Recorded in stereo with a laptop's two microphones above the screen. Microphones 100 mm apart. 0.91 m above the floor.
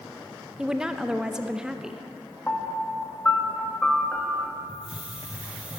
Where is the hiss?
15° right (ahead or behind), 0.8 m.